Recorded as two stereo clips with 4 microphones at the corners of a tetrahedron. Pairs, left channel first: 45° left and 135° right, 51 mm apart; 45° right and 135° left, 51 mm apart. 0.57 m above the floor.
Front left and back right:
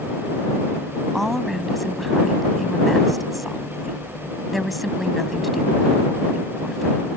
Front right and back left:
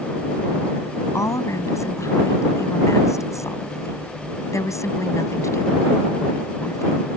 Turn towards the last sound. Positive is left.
turn(degrees=-45)